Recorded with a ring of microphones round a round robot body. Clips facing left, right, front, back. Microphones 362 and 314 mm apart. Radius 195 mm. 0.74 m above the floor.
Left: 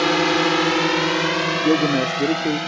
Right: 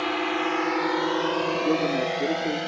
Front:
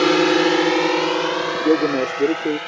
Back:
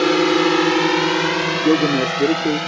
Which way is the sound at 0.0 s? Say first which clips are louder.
Left 8 dB, even; 85° left.